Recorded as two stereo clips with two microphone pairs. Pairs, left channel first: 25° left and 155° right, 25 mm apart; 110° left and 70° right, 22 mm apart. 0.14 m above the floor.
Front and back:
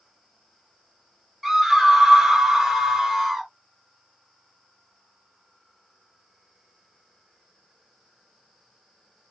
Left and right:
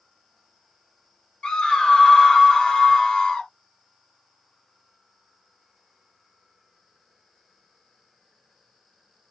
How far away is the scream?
About 1.8 m.